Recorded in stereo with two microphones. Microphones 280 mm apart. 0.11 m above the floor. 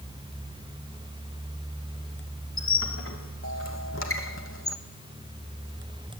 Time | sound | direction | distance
2.6 | a squeak | 50° left (ahead or behind) | 0.9 m